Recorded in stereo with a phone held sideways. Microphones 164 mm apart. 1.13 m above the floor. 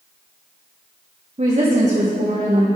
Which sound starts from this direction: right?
A woman speaking, at 1.4 s.